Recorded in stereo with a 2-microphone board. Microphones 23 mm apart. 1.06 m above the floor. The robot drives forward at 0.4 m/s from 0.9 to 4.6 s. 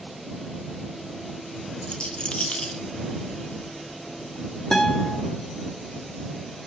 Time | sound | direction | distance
1.8 | a rattle | 55° left (ahead or behind) | 1.1 m
4.7 | a guitar | 25° left (ahead or behind) | 2 m